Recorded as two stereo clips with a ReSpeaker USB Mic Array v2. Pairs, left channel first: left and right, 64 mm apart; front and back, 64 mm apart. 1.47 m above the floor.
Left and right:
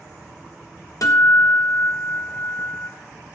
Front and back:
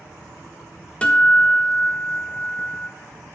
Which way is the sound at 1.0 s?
70° left.